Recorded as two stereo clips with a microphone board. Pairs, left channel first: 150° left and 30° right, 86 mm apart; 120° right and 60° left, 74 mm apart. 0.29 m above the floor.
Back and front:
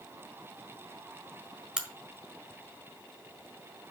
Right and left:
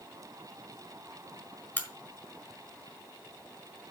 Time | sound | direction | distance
1.8 | a crack | 105° right | 1.6 m